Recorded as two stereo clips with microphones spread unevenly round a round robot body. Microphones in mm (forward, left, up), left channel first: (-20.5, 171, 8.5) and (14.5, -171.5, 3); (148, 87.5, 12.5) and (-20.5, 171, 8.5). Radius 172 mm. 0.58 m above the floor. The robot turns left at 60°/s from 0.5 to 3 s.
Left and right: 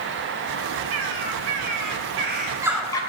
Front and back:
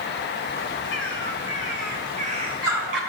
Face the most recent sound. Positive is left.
turn(degrees=175)